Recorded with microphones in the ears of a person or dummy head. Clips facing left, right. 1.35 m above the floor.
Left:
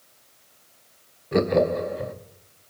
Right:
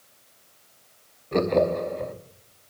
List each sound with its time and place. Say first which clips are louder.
1.3 s laughter: left 1 dB; 10° left (ahead or behind), 0.9 m